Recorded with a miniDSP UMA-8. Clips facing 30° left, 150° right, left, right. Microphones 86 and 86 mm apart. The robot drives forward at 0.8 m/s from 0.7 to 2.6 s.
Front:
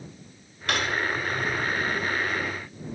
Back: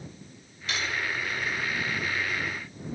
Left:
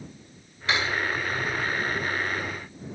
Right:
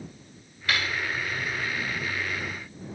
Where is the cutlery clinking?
25° left, 1.7 m; by 1.0 s 30° left, 1.5 m.